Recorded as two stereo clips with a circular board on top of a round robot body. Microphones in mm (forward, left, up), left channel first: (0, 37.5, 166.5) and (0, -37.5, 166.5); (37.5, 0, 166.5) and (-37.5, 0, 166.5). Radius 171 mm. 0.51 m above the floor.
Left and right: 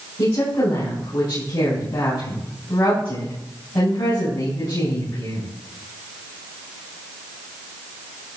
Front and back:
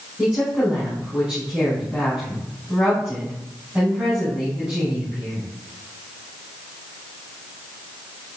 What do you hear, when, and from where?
0.2 s a woman speaking: 100° left, 6 m